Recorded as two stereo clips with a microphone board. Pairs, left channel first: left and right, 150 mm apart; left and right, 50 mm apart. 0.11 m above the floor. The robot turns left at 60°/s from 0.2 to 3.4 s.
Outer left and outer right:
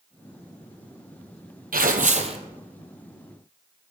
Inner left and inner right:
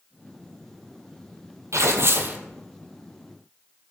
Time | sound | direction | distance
1.7 | tearing paper | 100° right | 0.9 m